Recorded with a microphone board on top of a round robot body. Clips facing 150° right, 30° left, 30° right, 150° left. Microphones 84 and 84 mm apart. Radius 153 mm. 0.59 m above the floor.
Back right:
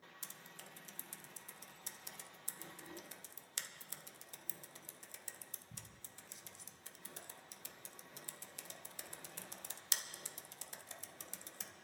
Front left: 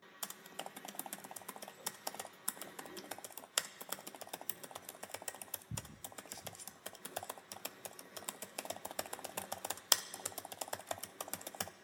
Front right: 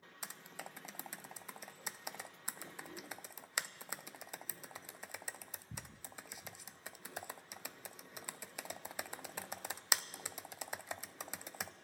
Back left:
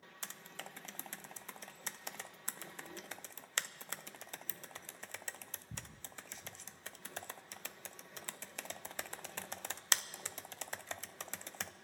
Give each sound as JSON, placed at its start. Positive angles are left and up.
{"t": 0.2, "sound": "typing on a keyboard", "azimuth_deg": 50, "distance_m": 0.5}